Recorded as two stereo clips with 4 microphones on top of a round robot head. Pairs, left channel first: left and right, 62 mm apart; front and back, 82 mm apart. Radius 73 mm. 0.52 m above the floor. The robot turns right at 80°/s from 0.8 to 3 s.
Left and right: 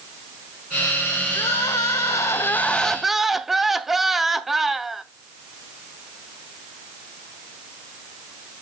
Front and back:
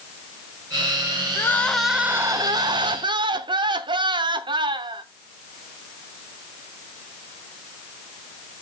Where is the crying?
50° left, 0.9 m; by 5.0 s 175° right, 0.9 m.